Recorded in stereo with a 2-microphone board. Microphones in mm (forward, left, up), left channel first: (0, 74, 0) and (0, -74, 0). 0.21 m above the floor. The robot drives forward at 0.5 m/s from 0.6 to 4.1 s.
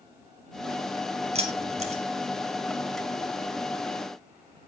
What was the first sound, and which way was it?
Keys jangling, 45° right (ahead or behind).